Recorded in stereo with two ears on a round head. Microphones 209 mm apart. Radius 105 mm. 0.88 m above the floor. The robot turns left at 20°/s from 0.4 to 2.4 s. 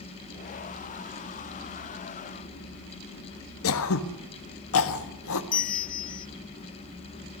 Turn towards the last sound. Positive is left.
turn(degrees=35)  # may be behind; listen again after turning